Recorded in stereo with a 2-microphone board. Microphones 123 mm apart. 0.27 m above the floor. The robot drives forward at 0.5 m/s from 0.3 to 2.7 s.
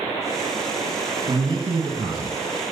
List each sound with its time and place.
1.3 s a man speaking: 45° right (ahead or behind), 2.5 m; by 2.4 s 40° right (ahead or behind), 2.5 m